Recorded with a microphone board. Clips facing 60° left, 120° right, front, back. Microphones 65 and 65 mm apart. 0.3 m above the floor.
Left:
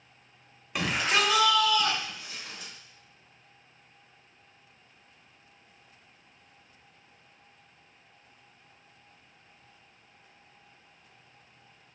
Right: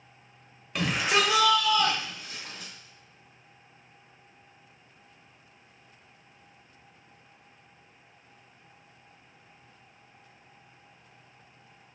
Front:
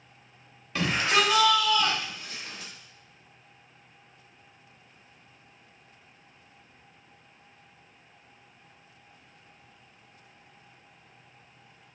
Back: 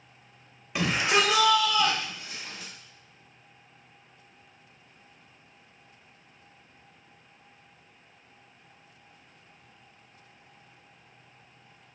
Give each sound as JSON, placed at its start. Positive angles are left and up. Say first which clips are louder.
{"t": 0.8, "sound": "a shout", "louder": "right 1 dB, even", "azimuth_deg": 140, "distance_m": 0.9}